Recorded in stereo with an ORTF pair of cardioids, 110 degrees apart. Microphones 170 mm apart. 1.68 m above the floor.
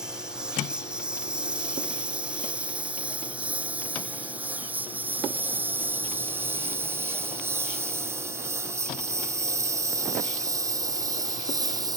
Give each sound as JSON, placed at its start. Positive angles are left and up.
{"t": 0.0, "sound": "a lawn mower", "azimuth_deg": -5}